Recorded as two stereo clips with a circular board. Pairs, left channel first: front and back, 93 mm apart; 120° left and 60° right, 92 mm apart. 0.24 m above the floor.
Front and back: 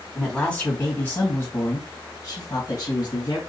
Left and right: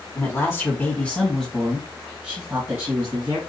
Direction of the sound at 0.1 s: 80° left.